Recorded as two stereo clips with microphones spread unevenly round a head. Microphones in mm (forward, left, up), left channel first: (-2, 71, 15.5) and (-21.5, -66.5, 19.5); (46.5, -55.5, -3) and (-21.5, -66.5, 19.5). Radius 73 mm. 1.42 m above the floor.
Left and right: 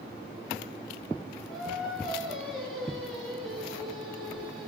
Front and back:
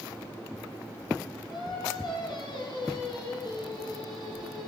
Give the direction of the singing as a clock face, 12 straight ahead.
12 o'clock.